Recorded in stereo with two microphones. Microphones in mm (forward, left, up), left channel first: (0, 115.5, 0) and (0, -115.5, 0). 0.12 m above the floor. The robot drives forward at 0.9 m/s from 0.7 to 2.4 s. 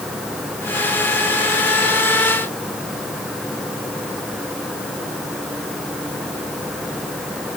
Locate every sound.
Only background noise.